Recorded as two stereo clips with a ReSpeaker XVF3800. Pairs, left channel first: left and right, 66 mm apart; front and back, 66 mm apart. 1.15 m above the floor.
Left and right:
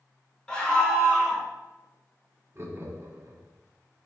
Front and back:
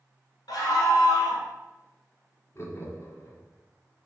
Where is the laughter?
40° right, 1.3 m.